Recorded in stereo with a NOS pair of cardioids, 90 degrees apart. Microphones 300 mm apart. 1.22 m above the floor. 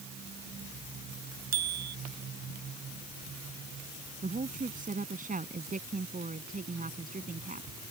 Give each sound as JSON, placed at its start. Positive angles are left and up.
{"t": 1.5, "sound": "a bicycle bell", "azimuth_deg": -60}
{"t": 4.2, "sound": "a woman speaking", "azimuth_deg": -25}